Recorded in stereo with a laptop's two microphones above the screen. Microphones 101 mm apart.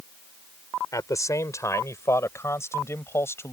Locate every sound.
0.9 s a man speaking: 35° left (ahead or behind); by 3.5 s 25° left (ahead or behind)